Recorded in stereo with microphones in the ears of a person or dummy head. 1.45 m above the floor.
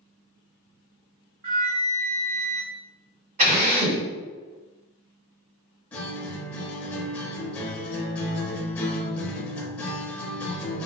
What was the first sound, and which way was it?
A flute, 50° right (ahead or behind).